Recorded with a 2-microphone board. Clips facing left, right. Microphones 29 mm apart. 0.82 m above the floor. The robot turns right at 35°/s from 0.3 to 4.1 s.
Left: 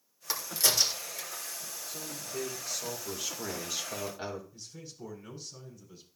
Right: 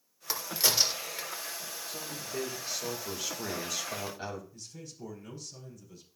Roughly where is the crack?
Centre.